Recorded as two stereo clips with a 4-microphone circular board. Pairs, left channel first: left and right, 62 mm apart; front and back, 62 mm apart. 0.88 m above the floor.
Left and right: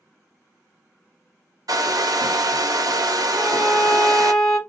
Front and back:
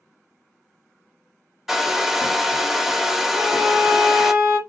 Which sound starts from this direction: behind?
A violin, at 3.3 s.